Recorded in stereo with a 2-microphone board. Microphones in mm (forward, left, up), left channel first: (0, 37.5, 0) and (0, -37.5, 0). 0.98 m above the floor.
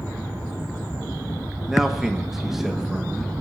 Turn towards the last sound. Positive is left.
turn(degrees=-5)  # may be behind; listen again after turning